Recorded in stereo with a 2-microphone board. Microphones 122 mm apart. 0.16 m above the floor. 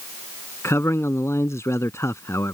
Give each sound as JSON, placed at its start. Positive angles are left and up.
{"t": 0.6, "sound": "a man speaking", "side_deg": 25}